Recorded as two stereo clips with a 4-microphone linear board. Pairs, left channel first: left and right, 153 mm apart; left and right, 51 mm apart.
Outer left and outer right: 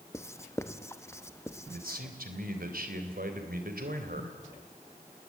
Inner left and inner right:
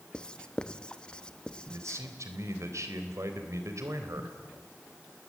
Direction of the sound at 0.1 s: 20° left (ahead or behind).